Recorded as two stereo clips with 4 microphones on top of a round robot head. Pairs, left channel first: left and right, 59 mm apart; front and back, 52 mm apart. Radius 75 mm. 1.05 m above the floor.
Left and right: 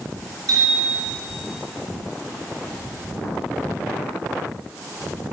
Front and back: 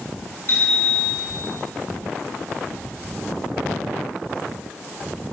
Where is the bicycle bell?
55° right, 3.5 m.